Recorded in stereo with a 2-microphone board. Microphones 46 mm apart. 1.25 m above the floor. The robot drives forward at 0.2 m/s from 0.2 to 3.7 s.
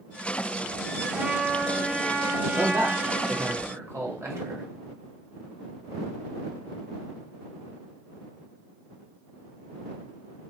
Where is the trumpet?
30° right (ahead or behind), 0.7 m; by 3.5 s 15° right (ahead or behind), 1.1 m.